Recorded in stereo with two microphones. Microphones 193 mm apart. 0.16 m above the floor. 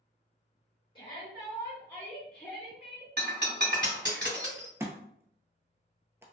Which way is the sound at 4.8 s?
15° right (ahead or behind).